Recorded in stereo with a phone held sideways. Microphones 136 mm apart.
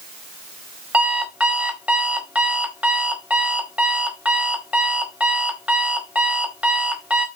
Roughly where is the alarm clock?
Centre.